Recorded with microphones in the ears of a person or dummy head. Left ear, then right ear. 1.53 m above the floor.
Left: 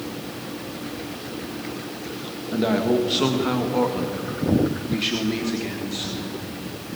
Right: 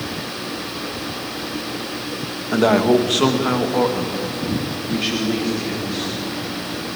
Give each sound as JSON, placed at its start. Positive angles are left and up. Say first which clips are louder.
{"t": 2.5, "sound": "a man speaking", "louder": "right 6 dB", "side_deg": -45, "distance_m": 1.9}